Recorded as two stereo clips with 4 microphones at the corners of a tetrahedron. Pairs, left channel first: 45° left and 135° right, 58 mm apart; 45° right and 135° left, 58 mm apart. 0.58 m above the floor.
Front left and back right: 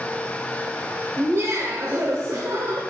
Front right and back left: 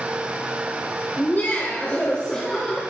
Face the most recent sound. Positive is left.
turn(degrees=-125)